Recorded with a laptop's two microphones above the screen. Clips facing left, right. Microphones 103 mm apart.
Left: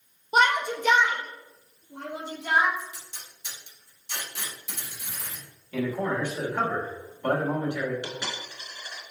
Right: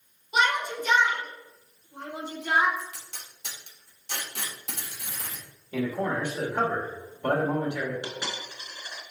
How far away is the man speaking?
About 1.5 m.